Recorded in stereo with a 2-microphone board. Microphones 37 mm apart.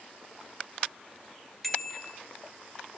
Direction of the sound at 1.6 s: Centre (ahead or behind).